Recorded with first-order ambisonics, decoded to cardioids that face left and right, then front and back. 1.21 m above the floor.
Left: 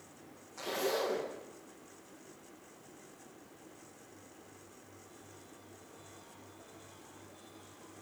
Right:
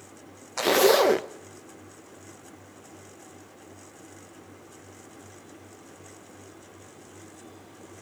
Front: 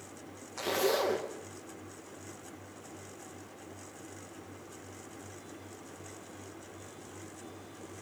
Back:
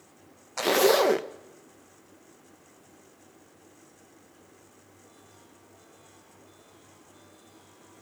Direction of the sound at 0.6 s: 120° right.